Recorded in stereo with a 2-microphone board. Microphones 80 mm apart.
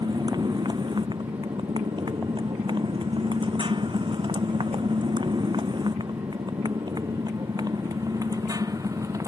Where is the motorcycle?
60° right (ahead or behind); by 9.3 s 40° right (ahead or behind).